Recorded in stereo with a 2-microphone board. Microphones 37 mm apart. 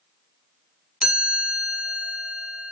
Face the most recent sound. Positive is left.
turn(degrees=-20)  # may be behind; listen again after turning